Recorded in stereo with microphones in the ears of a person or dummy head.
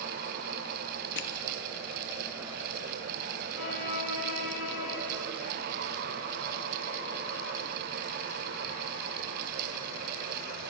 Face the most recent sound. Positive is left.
turn(degrees=65)  # may be behind; listen again after turning